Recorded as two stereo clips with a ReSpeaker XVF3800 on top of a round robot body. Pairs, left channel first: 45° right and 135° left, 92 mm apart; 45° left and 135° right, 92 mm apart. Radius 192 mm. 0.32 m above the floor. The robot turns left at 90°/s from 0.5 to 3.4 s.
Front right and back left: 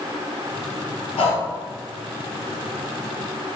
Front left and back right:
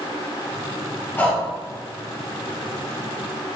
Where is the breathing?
20° right, 2.5 m; by 1.4 s 45° right, 2.5 m.